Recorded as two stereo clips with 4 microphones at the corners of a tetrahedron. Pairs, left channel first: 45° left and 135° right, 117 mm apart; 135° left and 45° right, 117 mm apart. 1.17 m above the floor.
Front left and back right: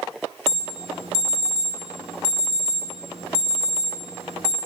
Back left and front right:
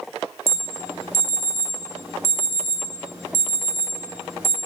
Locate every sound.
0.5 s an alarm: 115° right, 3 m